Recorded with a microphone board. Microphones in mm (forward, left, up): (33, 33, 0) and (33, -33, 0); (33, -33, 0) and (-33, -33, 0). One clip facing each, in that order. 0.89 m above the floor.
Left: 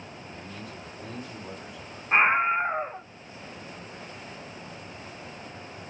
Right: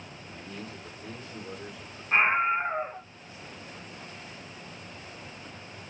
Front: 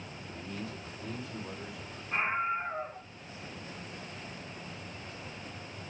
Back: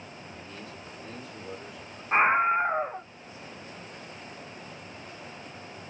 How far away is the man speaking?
About 8.5 m.